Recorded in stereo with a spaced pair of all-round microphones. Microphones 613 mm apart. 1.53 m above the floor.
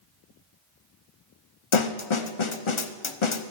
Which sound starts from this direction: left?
A snare drum, at 1.7 s.